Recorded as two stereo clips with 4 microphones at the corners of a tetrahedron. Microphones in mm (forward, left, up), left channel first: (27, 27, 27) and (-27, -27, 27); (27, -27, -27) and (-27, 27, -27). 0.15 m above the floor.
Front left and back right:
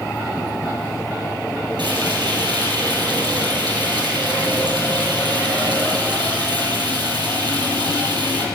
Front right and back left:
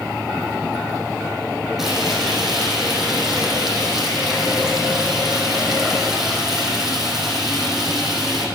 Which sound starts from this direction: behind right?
Frying, at 1.8 s.